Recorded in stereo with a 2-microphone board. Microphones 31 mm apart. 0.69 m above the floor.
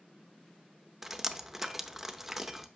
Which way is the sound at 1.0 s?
10° right (ahead or behind).